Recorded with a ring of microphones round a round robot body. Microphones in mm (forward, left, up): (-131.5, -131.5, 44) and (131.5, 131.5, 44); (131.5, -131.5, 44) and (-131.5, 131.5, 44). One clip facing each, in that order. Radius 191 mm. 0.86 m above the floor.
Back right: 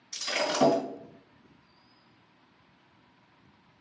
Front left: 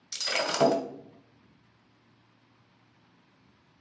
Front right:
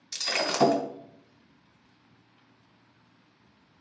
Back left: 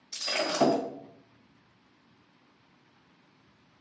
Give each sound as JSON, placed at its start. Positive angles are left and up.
{"t": 0.1, "sound": "breaking glass", "azimuth_deg": 20, "distance_m": 1.3}